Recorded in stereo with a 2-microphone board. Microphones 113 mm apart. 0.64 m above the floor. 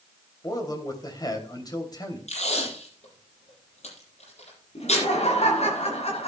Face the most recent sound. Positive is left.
turn(degrees=75)  # may be behind; listen again after turning